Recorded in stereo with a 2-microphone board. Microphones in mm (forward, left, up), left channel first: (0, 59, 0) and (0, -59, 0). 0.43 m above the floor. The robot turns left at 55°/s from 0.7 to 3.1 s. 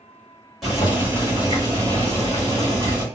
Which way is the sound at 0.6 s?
Straight ahead.